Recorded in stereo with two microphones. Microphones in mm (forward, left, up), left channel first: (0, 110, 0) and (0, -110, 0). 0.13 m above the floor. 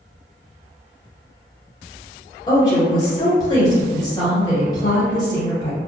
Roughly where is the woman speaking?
Centre.